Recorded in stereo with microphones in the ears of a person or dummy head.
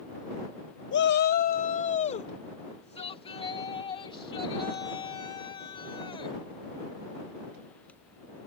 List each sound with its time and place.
0.9 s a shout: 60° left (ahead or behind); by 6.4 s 20° left (ahead or behind)